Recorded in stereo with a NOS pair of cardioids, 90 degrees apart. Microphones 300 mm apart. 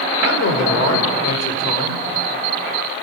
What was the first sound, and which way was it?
A man speaking, 60° left.